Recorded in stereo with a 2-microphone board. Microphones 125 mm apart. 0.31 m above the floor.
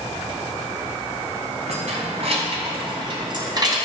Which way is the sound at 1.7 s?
65° right (ahead or behind).